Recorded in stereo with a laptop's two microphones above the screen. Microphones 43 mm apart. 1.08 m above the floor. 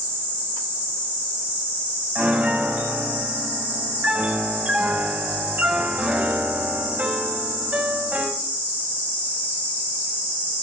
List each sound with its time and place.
2.1 s a piano: 40° right (ahead or behind), 5.5 m